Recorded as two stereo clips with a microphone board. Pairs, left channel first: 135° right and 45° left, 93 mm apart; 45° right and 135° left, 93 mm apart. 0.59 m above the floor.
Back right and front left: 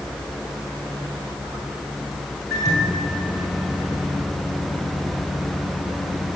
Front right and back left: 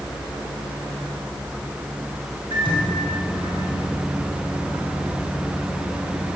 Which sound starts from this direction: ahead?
A microwave, at 2.5 s.